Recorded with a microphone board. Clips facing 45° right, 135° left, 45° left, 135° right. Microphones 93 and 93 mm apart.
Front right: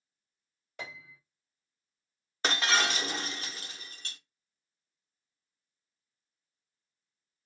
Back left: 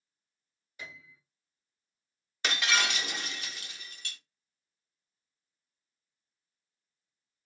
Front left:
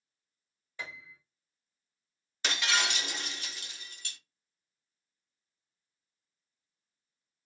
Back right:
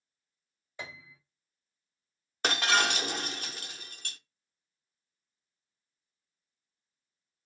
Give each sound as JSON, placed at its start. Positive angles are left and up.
{"t": 0.8, "sound": "a piano", "azimuth_deg": -65, "distance_m": 1.6}
{"t": 2.4, "sound": "breaking glass", "azimuth_deg": -95, "distance_m": 0.5}